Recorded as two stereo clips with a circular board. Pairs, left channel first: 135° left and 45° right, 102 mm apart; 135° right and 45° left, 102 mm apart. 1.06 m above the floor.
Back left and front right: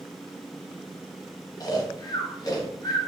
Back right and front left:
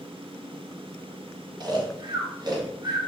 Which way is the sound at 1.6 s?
85° left.